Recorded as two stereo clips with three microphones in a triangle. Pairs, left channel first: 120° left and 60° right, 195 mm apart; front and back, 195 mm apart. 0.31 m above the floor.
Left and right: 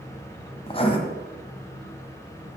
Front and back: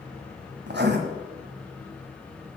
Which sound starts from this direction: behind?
Writing, at 0.7 s.